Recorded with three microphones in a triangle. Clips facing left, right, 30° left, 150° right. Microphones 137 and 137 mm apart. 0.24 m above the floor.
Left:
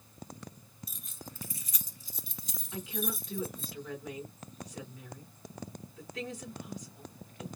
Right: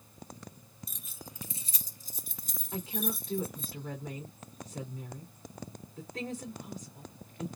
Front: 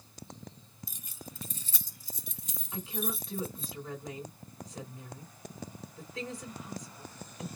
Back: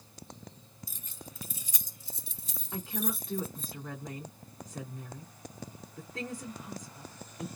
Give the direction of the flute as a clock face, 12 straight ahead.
No flute in this recording.